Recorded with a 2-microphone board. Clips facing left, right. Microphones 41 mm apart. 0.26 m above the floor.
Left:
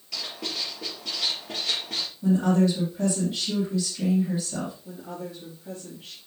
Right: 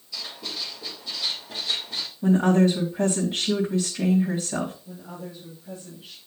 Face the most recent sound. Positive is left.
turn(degrees=80)